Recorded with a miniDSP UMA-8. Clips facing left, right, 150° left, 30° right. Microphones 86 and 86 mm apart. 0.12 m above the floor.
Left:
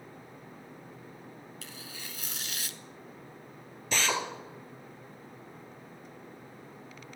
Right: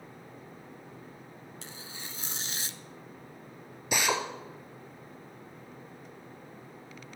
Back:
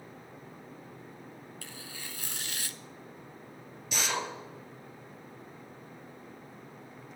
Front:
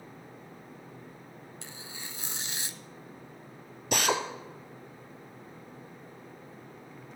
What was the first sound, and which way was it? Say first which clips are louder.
Tearing paper: even, front 1 dB; 70° right.